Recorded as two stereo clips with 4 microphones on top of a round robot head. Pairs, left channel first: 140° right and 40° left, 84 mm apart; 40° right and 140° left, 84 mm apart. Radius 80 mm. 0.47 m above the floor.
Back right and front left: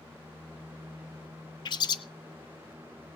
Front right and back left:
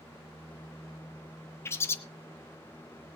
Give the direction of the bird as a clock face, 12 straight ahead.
3 o'clock.